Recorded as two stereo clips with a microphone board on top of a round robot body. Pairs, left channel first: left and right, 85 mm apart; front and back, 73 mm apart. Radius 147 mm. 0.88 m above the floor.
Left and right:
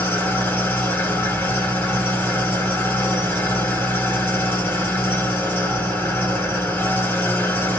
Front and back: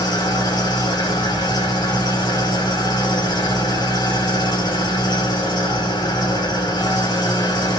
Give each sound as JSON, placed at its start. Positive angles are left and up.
{"t": 0.0, "sound": "an engine running", "azimuth_deg": 20, "distance_m": 3.0}